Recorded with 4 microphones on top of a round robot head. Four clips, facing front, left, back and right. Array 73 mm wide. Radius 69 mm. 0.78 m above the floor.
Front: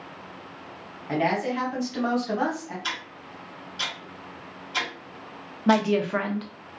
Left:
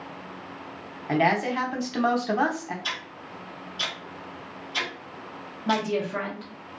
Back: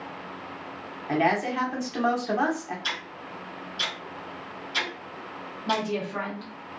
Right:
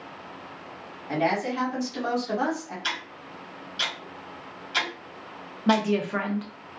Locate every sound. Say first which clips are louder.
1.1 s a woman speaking: left 3 dB, back 1 dB; 115° left, 0.9 m
2.8 s ticking: right 1 dB, even; 65° right, 1.4 m
5.7 s a woman speaking: right 3 dB, front 7 dB; 30° right, 0.7 m